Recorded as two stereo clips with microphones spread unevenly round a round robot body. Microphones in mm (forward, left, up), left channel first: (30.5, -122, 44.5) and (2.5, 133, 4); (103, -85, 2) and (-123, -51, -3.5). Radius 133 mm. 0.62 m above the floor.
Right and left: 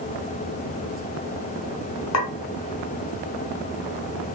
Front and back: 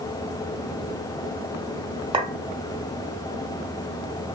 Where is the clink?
120° right, 0.8 m.